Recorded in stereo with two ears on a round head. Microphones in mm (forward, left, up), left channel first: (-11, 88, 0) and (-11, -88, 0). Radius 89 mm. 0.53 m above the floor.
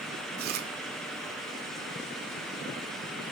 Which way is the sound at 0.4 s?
50° right (ahead or behind).